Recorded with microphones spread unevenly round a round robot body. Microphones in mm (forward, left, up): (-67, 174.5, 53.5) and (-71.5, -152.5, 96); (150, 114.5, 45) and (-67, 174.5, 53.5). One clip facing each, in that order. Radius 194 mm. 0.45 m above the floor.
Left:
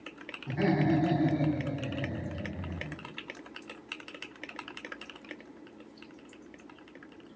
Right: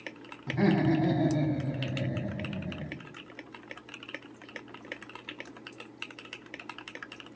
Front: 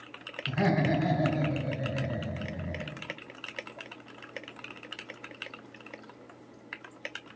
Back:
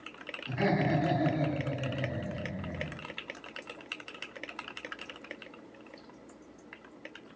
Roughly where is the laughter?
Ahead.